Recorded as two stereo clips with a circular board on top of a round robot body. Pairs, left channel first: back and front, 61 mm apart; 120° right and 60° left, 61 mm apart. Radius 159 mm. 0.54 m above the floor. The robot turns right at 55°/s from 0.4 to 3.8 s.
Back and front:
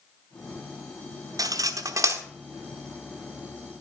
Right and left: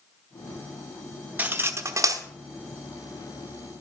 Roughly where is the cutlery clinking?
Ahead.